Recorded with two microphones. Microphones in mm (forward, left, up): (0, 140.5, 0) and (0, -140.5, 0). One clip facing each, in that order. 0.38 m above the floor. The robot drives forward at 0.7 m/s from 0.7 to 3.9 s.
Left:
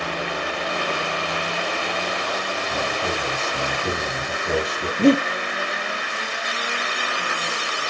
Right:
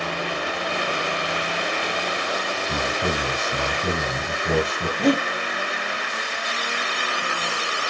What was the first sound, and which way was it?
A man speaking, 60° right (ahead or behind).